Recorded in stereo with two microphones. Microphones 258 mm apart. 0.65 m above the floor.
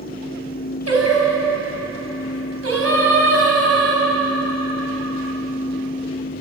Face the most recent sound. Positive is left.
turn(degrees=-65)  # may be behind; listen again after turning